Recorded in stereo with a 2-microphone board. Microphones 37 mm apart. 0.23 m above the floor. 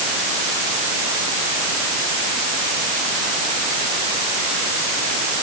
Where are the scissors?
I don't hear scissors.